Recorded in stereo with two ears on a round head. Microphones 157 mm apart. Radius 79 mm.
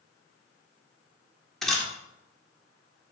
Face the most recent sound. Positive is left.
turn(degrees=0)  # may be behind; listen again after turning